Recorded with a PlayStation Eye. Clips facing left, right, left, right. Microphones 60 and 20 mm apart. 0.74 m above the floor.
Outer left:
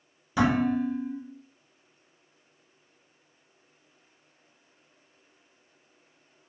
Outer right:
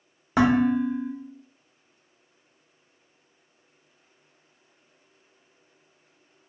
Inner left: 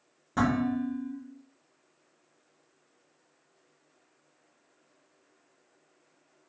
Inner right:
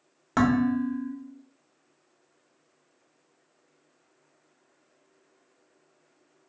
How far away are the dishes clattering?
About 0.7 m.